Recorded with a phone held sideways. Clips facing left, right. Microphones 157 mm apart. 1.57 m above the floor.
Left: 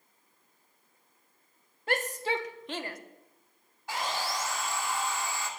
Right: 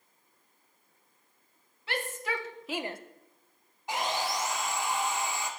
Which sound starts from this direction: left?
A shout, at 1.9 s.